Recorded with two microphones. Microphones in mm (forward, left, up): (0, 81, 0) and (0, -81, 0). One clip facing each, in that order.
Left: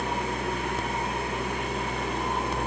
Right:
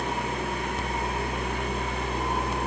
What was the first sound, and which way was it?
Only background noise.